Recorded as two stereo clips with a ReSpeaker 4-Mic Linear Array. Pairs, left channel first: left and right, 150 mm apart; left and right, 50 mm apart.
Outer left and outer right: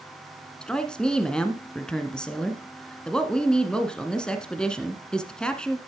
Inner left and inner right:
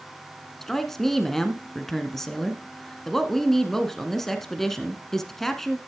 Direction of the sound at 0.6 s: 5° left (ahead or behind).